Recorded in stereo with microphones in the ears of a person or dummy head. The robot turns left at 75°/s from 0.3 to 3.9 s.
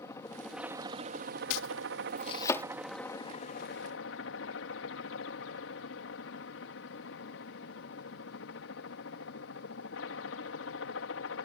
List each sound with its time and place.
0.0 s a helicopter: 15° left; by 11.5 s 105° left
1.5 s chopping: 75° left (ahead or behind); by 2.6 s 10° left (ahead or behind)